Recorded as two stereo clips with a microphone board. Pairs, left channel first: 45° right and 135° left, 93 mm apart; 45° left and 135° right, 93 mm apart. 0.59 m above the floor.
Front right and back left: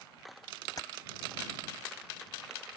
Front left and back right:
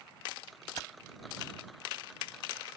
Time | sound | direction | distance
0.8 | keys jangling | straight ahead | ?